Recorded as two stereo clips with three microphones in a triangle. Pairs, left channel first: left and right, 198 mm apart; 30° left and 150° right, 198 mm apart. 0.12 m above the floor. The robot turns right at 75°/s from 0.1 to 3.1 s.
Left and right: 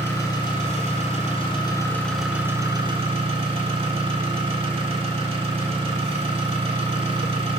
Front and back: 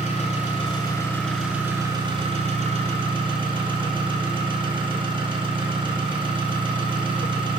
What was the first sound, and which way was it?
An engine running, 25° left.